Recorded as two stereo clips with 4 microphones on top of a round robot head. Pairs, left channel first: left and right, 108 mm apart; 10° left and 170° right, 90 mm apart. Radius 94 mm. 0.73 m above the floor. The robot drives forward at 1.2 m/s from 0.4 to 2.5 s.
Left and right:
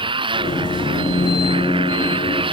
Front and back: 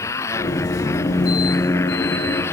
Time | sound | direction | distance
0.0 | a motorcycle | 50° right | ?